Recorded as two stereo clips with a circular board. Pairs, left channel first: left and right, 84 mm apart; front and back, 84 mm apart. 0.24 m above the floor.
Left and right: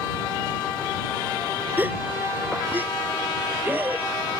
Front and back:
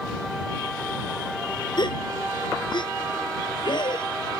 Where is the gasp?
25° right.